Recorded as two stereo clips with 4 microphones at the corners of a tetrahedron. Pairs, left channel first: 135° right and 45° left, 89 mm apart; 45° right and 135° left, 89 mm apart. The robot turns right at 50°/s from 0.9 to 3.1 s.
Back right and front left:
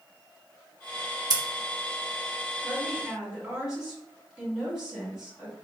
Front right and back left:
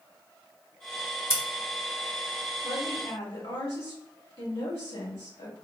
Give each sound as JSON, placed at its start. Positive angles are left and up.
{"t": 1.3, "sound": "scissors", "azimuth_deg": 10, "distance_m": 0.7}
{"t": 2.6, "sound": "a woman speaking", "azimuth_deg": -60, "distance_m": 1.8}